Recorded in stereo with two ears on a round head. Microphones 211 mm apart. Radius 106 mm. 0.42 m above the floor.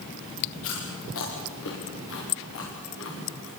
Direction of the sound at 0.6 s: 60° left (ahead or behind).